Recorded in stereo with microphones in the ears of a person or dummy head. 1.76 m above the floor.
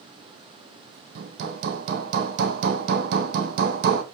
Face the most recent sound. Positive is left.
turn(degrees=-55)  # may be behind; listen again after turning